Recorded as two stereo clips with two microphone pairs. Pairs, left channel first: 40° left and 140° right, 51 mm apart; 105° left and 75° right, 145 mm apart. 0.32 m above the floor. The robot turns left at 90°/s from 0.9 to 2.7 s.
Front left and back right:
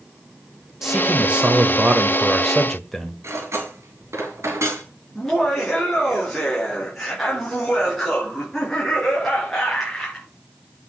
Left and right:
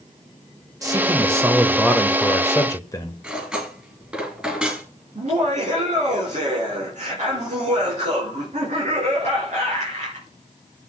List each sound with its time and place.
0.8 s a man speaking: 75° right, 1.1 m; by 3.1 s 120° left, 1.1 m
3.2 s cutlery clinking: 160° right, 3 m
5.2 s laughter: 45° right, 3.5 m